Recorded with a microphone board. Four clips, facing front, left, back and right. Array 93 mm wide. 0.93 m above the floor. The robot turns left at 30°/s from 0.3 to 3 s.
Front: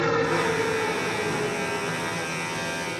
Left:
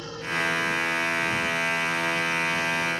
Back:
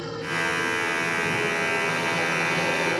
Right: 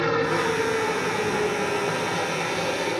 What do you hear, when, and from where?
0.0 s a helicopter: 50° right; by 3.0 s 135° right